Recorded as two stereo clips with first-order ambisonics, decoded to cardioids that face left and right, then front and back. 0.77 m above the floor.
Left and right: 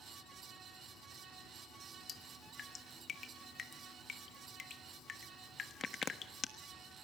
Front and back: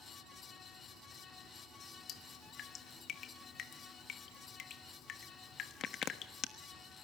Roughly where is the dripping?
Ahead left.